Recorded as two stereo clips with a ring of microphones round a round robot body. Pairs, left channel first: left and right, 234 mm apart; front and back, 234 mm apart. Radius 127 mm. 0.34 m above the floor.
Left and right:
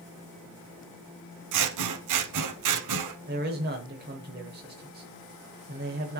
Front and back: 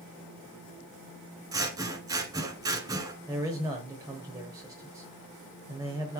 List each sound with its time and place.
1.5 s scissors: 105° right, 0.8 m
3.3 s a man speaking: 110° right, 1.1 m